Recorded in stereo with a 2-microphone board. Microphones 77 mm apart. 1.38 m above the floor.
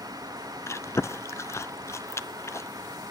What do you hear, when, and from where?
0.7 s chewing: 35° left (ahead or behind), 0.6 m